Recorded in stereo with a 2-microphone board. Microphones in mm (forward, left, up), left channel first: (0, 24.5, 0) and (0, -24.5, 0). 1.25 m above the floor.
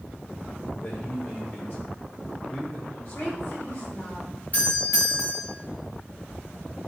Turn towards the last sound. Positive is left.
turn(degrees=35)  # may be behind; listen again after turning